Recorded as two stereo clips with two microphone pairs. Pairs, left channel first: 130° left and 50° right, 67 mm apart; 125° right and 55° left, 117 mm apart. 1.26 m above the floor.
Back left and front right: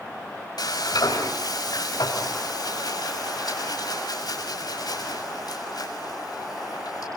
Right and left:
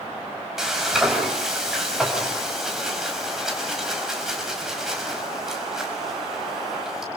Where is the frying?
145° left, 6 m.